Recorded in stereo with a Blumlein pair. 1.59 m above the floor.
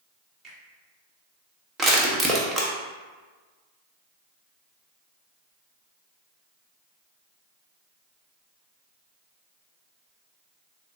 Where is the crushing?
15° right, 0.9 m.